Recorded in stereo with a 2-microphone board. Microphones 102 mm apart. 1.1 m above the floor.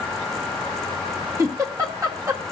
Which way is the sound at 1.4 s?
30° right (ahead or behind).